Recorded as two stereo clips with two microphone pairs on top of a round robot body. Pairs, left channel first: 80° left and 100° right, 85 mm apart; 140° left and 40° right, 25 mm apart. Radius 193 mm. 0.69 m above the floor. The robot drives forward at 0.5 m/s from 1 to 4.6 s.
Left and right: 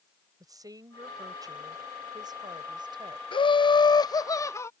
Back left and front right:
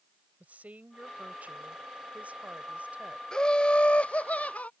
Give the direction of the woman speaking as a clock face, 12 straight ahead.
2 o'clock.